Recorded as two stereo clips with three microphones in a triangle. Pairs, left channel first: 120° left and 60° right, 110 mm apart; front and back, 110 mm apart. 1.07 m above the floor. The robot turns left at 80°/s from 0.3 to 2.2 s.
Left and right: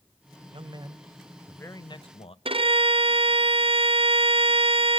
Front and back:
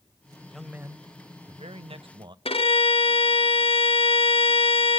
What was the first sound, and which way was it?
A man speaking, 85° right.